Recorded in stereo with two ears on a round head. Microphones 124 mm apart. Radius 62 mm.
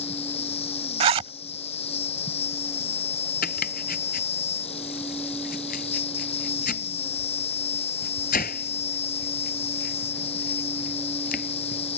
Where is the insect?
45° left (ahead or behind).